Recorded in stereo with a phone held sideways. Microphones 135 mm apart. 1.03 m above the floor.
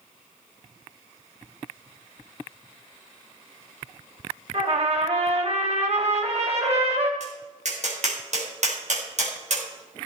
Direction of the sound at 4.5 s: 55° right (ahead or behind).